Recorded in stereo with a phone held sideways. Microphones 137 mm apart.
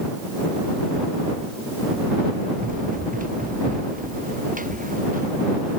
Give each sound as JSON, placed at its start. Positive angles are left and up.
{"t": 2.6, "sound": "running footsteps", "side_deg": -85}